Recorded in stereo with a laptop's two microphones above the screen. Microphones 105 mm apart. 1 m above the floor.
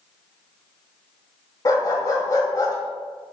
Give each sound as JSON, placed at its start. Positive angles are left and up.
{"t": 1.6, "sound": "a dog barking", "side_deg": 35, "distance_m": 1.8}